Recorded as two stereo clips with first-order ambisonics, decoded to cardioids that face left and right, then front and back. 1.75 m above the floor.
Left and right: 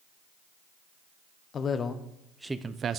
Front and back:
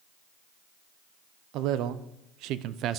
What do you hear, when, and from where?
1.5 s a man speaking: 150° left, 1.0 m; by 3.0 s 140° right, 0.7 m